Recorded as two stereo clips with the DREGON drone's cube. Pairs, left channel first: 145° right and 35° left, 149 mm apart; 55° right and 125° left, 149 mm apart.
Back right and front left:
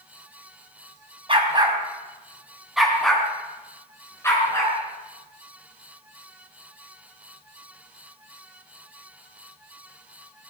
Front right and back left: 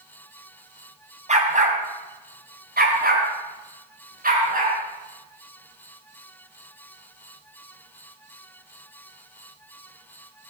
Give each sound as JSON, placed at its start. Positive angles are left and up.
{"t": 1.3, "sound": "a dog barking", "azimuth_deg": 85, "distance_m": 2.5}